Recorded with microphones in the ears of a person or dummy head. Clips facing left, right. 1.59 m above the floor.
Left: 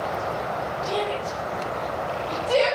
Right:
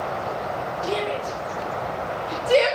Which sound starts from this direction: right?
A shout, at 0.8 s.